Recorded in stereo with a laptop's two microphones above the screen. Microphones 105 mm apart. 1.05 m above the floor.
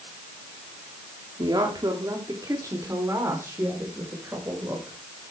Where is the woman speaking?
40° right (ahead or behind), 2.5 m; by 5.0 s 20° right (ahead or behind), 5 m.